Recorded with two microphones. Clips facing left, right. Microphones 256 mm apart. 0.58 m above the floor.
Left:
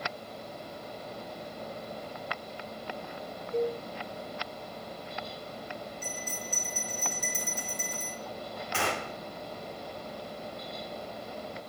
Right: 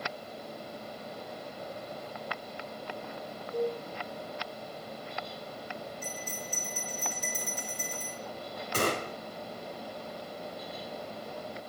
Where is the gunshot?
45° right (ahead or behind), 0.8 m.